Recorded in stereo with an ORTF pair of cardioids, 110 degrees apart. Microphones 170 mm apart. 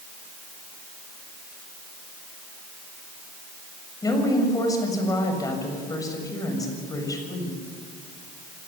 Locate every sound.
4.0 s a woman speaking: 20° left, 6.5 m